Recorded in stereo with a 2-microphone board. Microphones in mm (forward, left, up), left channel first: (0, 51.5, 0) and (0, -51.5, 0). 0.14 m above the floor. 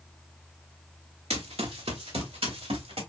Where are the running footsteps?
75° right (ahead or behind), 1.2 m; by 3.0 s 70° right (ahead or behind), 2 m.